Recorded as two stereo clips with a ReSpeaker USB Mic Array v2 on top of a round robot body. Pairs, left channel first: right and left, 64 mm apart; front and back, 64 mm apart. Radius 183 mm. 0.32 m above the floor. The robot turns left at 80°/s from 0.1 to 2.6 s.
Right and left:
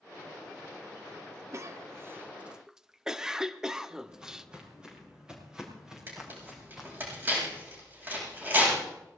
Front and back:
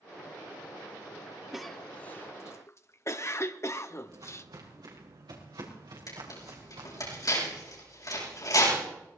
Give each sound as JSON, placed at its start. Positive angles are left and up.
{"t": 1.5, "sound": "a cough", "azimuth_deg": 100, "distance_m": 1.3}
{"t": 4.1, "sound": "footsteps", "azimuth_deg": 165, "distance_m": 5.5}
{"t": 6.1, "sound": "tearing paper", "azimuth_deg": 30, "distance_m": 8.0}